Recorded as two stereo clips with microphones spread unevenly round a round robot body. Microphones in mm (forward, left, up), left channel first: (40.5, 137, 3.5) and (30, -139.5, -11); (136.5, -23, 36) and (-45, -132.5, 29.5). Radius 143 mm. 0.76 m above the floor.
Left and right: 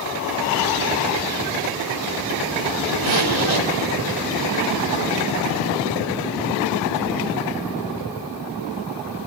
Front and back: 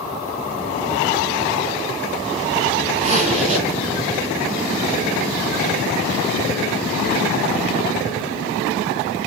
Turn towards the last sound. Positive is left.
turn(degrees=-90)